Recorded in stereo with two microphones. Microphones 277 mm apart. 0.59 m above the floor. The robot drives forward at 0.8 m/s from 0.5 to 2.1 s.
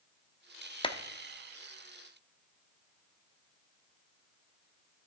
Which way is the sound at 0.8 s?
20° left (ahead or behind).